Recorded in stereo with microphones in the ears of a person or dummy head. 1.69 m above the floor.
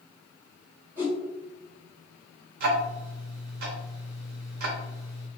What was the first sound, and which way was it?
A whoosh, 15° right (ahead or behind).